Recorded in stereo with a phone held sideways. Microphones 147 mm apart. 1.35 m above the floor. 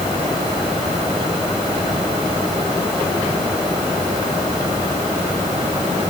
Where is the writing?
I don't hear writing.